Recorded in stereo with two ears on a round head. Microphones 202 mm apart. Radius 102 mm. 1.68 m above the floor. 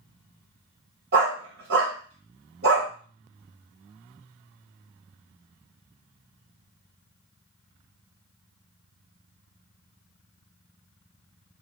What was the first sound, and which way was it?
A dog barking, 50° right (ahead or behind).